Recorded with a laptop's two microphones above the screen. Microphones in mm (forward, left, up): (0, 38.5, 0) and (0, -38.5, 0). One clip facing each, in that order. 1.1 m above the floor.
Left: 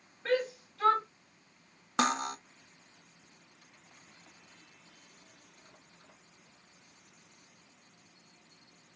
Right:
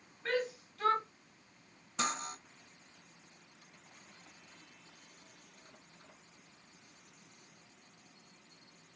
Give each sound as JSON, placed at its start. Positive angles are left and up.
{"t": 0.2, "sound": "a shout", "side_deg": 20, "distance_m": 1.3}
{"t": 2.0, "sound": "cutlery clinking", "side_deg": 65, "distance_m": 0.6}